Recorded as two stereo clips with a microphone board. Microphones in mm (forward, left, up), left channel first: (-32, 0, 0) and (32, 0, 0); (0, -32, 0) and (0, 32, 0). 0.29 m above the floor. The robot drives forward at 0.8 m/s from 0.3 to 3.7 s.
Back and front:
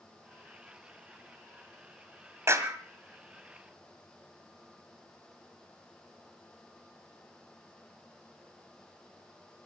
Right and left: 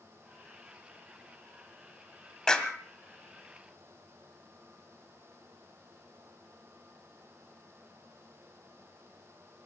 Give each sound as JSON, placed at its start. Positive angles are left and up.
{"t": 2.5, "sound": "a clap", "azimuth_deg": -15, "distance_m": 1.8}